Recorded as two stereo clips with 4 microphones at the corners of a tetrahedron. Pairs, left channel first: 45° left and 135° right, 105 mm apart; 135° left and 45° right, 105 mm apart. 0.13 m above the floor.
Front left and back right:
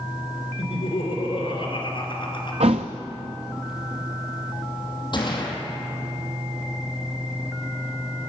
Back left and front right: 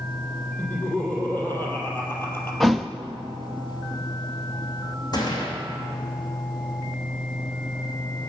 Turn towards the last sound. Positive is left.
turn(degrees=90)